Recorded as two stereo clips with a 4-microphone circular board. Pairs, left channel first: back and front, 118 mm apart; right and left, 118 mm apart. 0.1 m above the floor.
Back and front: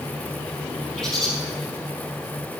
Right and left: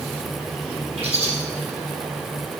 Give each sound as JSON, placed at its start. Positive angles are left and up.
{"t": 1.0, "sound": "a bird", "azimuth_deg": 90, "distance_m": 4.5}